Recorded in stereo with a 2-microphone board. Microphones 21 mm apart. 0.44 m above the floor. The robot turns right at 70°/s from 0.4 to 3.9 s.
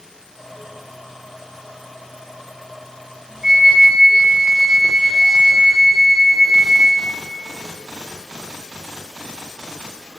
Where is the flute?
110° right, 1.5 m; by 7.1 s 80° right, 1.5 m.